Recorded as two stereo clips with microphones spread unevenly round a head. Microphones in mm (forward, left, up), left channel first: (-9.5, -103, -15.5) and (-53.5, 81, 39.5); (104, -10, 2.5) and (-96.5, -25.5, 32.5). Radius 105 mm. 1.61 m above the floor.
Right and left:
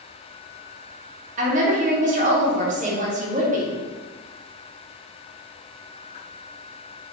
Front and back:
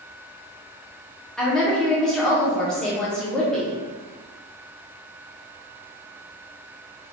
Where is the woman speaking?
100° left, 0.6 m.